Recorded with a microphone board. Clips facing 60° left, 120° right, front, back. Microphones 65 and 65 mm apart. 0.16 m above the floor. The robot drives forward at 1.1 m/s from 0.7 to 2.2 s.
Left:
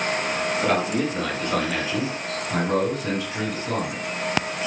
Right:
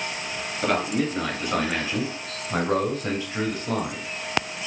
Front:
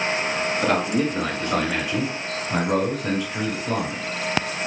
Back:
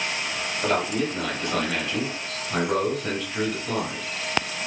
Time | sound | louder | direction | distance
0.6 | a man speaking | right 1 dB, front 1 dB | 30° right | 2.5 m